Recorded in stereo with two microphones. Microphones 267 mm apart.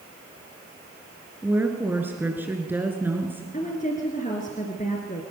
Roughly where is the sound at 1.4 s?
Centre.